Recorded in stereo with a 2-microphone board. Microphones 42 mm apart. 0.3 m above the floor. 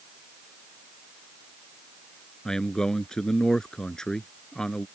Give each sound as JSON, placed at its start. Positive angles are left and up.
{"t": 2.5, "sound": "a man speaking", "side_deg": 15}